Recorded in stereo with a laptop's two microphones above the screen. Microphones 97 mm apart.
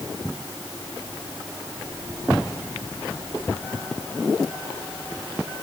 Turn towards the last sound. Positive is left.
No sound to turn to.